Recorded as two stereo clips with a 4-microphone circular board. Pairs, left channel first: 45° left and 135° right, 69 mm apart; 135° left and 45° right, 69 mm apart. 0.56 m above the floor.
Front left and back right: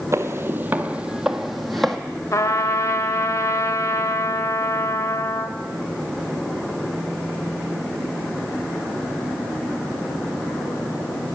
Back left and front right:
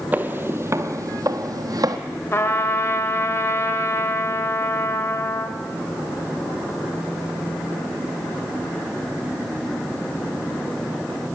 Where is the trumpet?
85° left, 0.9 m.